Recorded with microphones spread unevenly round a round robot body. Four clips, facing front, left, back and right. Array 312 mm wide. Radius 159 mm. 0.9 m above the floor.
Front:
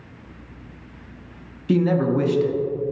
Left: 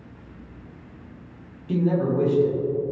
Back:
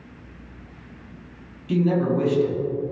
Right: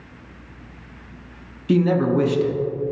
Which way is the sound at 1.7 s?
60° right.